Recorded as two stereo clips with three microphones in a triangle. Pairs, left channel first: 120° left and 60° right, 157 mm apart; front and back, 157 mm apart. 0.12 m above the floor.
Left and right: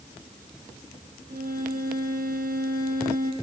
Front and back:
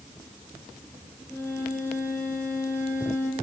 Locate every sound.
1.3 s a violin: 75° right, 3 m